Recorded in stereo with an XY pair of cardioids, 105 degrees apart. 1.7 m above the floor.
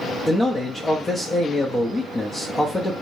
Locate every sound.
0.3 s a man speaking: 25° left, 0.8 m